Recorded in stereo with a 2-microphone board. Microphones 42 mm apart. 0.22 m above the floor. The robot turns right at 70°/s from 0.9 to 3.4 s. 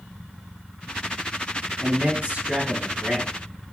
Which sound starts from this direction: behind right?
A man speaking, at 1.8 s.